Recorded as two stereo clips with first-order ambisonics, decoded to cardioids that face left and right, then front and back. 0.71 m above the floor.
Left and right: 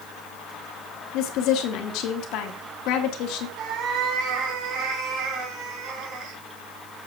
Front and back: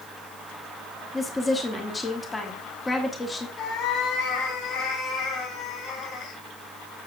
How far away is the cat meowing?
About 2 m.